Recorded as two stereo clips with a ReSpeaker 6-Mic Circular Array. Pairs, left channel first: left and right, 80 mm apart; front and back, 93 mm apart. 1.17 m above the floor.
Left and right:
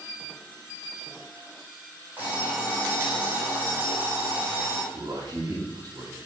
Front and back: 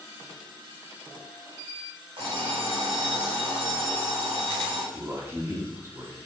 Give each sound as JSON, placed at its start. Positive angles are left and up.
{"t": 2.2, "sound": "an alarm clock", "azimuth_deg": -160, "distance_m": 3.0}
{"t": 4.9, "sound": "a man speaking", "azimuth_deg": -120, "distance_m": 2.5}